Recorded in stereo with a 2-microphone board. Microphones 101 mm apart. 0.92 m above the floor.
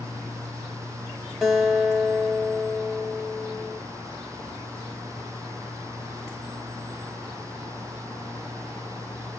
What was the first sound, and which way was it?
A guitar, 5° right (ahead or behind).